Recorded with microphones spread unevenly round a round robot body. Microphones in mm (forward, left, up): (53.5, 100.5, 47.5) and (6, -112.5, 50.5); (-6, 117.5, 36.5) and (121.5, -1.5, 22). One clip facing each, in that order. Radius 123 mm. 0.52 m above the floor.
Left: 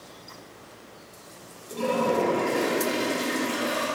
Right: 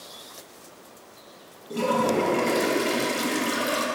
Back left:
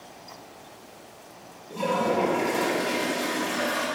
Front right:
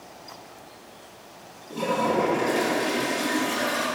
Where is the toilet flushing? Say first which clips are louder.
Right 1 dB, front right 1 dB; 130° right, 0.5 m.